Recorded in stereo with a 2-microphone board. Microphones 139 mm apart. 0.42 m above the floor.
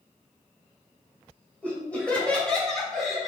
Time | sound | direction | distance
1.6 | laughter | 10° left (ahead or behind) | 1.8 m